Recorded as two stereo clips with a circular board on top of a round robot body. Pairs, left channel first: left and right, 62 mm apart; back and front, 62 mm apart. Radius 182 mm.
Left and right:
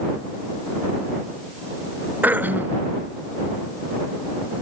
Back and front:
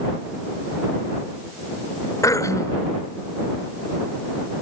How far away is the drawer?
I don't hear a drawer.